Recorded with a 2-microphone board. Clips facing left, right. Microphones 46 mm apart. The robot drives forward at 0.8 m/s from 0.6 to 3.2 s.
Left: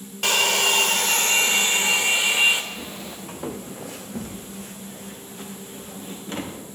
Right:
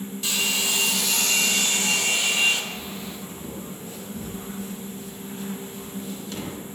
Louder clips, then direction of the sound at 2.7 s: Even; 75° left (ahead or behind).